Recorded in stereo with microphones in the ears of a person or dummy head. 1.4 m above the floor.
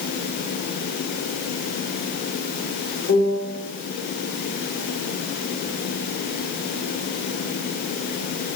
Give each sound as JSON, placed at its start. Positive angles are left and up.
{"t": 3.1, "sound": "a piano", "side_deg": 40, "distance_m": 2.5}